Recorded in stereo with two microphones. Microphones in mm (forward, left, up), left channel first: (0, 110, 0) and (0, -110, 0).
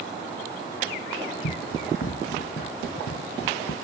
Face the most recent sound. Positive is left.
turn(degrees=85)